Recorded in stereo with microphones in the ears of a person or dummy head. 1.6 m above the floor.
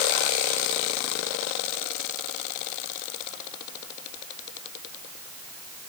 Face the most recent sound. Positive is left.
No sound to turn to.